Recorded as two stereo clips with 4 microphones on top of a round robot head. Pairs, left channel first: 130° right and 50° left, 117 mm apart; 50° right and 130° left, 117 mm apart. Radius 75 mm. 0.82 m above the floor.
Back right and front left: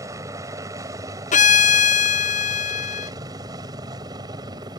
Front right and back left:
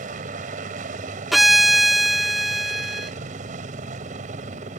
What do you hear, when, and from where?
0.0 s a helicopter: 115° left; by 4.8 s 110° left
1.3 s a violin: 140° right